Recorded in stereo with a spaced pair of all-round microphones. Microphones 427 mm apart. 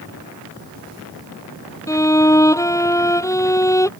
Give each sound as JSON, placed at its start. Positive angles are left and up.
{"t": 1.9, "sound": "a violin", "side_deg": 5}